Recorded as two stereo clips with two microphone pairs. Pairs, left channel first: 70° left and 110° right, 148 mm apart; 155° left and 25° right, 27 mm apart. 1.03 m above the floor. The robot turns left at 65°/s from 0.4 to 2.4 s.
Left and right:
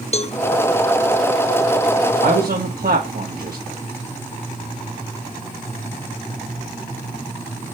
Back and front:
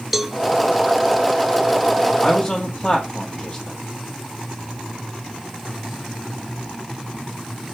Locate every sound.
0.1 s a cowbell: 60° left, 0.5 m
2.2 s a man speaking: 120° right, 1.8 m; by 3.8 s 135° right, 1.8 m